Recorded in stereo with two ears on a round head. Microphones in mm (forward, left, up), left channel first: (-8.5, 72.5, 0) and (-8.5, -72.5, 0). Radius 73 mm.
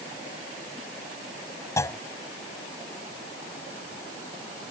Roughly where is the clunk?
Centre.